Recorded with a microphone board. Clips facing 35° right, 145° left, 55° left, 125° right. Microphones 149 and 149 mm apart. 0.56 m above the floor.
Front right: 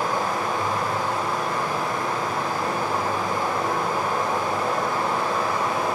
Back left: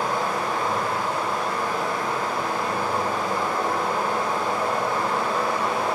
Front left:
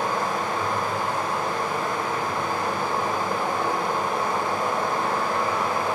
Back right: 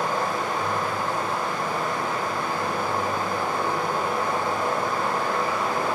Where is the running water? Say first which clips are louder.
Even, even; 35° left, 1.0 m.